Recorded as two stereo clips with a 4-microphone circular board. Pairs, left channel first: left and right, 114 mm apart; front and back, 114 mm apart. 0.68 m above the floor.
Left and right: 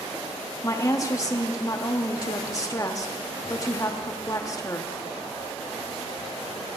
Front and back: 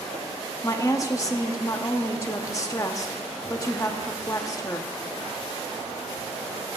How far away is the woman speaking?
About 0.9 m.